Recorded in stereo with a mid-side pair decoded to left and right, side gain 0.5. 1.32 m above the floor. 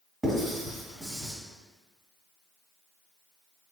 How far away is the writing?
About 2.0 m.